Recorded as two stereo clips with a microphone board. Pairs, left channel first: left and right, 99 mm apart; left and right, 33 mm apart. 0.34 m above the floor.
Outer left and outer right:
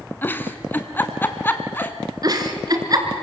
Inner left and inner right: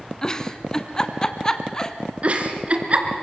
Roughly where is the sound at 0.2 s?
Centre.